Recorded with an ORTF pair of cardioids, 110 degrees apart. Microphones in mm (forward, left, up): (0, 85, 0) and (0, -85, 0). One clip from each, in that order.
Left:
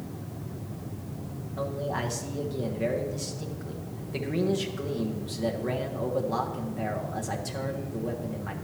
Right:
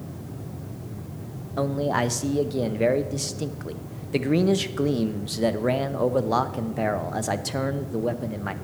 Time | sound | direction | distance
1.6 | a man speaking | 40° right | 0.7 m